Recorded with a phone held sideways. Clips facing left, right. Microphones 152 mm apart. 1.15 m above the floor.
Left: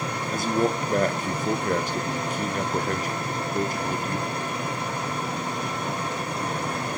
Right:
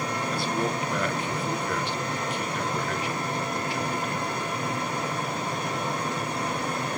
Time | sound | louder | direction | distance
0.3 | a man speaking | left 6 dB | 45° left (ahead or behind) | 1.1 m